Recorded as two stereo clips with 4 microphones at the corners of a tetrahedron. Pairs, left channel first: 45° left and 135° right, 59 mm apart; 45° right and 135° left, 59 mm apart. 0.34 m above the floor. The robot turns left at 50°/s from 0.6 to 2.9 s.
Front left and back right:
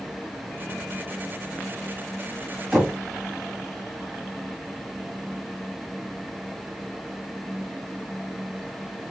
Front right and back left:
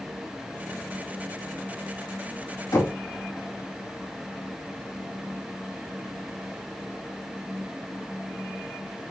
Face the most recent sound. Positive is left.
turn(degrees=-55)